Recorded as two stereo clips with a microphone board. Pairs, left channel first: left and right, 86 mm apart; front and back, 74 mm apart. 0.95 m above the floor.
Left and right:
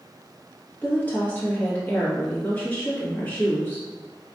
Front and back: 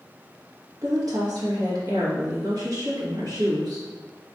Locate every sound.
0.8 s a woman speaking: 160° left, 1.8 m